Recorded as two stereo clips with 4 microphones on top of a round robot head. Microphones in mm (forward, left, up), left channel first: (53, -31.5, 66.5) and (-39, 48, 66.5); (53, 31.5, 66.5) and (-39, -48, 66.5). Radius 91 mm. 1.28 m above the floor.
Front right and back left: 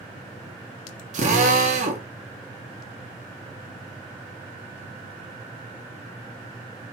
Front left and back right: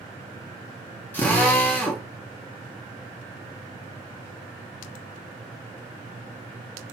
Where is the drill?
120° left, 2.5 m.